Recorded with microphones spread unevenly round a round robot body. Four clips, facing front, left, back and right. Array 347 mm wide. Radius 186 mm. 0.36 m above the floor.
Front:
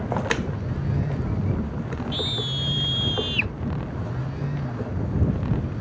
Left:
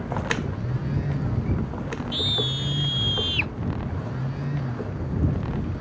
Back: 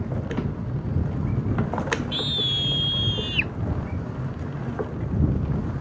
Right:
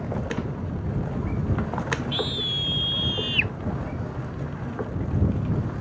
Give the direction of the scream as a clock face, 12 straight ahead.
7 o'clock.